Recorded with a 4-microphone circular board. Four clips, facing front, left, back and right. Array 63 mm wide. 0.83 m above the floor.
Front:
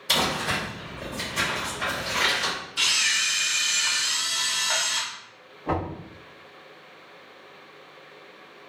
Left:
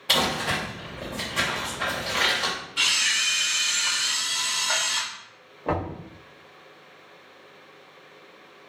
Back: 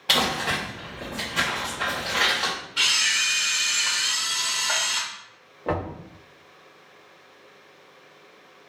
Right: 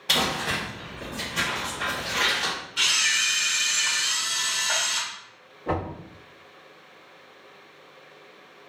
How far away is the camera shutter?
About 1.5 m.